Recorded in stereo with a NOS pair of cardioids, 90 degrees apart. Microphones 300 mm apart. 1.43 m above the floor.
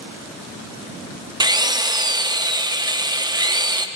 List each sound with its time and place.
1.4 s a drill: 15° right, 0.8 m